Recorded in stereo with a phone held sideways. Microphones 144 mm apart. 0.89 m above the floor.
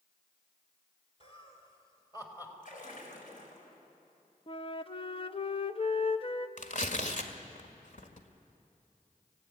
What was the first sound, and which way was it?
Laughter, 45° left (ahead or behind).